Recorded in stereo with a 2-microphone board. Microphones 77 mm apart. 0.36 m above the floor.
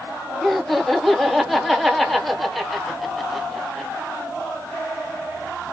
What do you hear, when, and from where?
0.4 s laughter: centre (ahead or behind), 0.9 m